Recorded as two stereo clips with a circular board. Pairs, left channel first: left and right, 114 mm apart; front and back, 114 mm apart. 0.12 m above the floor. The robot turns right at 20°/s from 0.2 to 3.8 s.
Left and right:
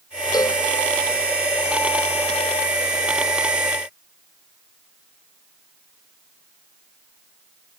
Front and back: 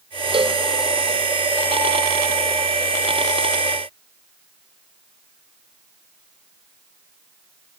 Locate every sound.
0.3 s a cowbell: 145° left, 0.6 m; by 0.6 s 150° left, 0.6 m